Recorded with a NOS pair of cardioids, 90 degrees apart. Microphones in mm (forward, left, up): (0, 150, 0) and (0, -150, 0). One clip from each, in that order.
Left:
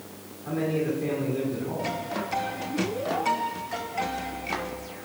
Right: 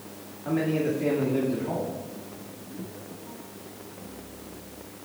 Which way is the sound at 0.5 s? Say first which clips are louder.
Right 1 dB; 55° right.